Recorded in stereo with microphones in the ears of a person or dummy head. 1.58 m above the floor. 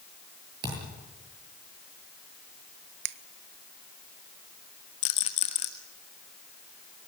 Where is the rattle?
35° left (ahead or behind), 1.5 m.